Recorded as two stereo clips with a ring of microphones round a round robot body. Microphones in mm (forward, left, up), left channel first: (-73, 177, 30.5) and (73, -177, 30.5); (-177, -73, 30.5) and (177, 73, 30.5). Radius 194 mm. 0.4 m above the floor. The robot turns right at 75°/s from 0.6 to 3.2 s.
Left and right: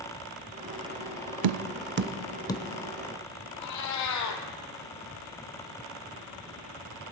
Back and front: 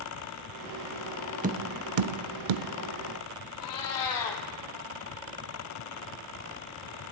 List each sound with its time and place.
1.4 s tapping: 45° right, 0.6 m; by 2.6 s 45° left, 0.6 m
3.6 s a cat meowing: 160° left, 2.5 m